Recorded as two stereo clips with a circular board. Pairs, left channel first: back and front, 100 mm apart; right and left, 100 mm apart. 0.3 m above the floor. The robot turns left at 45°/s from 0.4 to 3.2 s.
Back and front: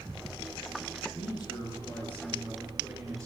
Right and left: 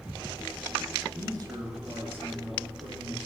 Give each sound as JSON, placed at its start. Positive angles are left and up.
{"t": 1.1, "sound": "a man speaking", "azimuth_deg": 150, "distance_m": 4.0}